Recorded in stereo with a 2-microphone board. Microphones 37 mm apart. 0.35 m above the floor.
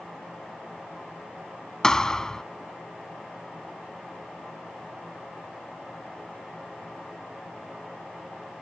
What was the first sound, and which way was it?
A thud, 20° left (ahead or behind).